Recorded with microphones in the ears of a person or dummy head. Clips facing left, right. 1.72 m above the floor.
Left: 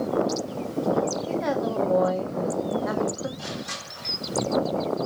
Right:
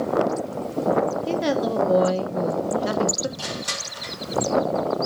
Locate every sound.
1.3 s a woman speaking: 45° right (ahead or behind), 1.9 m
3.4 s crushing: 80° right, 5 m